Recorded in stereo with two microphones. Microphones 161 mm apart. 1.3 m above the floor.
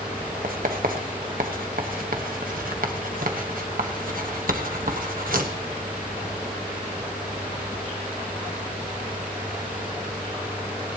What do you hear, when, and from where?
0.4 s writing: 65° right (ahead or behind), 1.4 m